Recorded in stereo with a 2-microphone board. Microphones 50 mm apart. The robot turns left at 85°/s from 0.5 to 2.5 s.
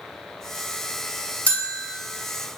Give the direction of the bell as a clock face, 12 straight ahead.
10 o'clock.